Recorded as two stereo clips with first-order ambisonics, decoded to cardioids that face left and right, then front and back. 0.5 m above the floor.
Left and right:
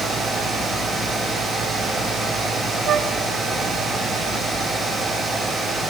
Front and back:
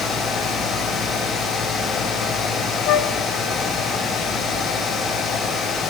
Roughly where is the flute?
Ahead right.